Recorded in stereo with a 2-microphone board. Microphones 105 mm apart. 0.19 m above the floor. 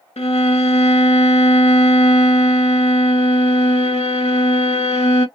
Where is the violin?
75° left (ahead or behind), 0.5 m.